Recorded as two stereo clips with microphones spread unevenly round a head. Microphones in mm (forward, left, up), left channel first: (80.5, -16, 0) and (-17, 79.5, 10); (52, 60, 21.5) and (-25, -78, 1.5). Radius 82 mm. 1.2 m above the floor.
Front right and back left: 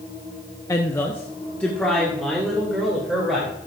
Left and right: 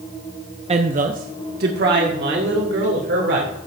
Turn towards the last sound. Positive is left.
turn(degrees=-135)